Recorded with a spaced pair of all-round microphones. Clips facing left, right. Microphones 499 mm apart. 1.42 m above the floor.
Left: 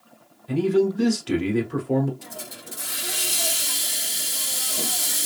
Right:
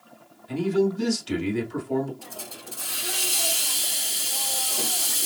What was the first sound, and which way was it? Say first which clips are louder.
A man speaking: left 3 dB; 75° left (ahead or behind).